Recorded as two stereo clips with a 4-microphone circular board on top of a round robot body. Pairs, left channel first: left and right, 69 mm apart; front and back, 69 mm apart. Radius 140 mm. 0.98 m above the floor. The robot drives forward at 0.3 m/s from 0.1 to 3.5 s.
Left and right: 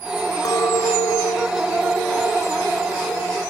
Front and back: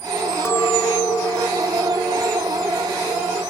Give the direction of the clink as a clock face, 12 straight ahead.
10 o'clock.